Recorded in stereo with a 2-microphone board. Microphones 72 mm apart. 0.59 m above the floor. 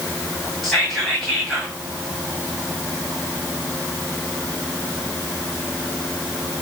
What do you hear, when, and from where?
0.6 s whispering: centre (ahead or behind), 1.8 m